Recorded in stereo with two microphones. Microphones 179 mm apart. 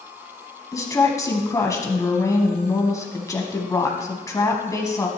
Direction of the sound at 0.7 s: 20° left (ahead or behind).